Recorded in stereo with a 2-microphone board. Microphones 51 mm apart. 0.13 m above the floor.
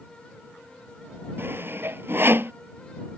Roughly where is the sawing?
Right.